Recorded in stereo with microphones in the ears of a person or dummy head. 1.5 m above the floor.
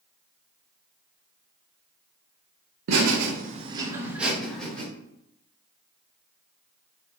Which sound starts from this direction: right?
Laughter, at 2.9 s.